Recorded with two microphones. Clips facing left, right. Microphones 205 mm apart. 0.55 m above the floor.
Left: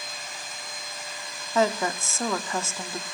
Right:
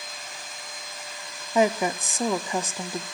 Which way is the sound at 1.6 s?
15° right (ahead or behind).